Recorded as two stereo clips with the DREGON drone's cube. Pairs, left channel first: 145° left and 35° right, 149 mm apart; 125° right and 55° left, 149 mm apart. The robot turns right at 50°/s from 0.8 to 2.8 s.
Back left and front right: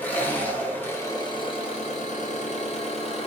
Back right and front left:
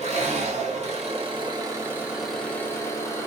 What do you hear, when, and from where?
0.0 s an engine running: 70° left, 1.3 m; by 3.3 s 170° left, 1.3 m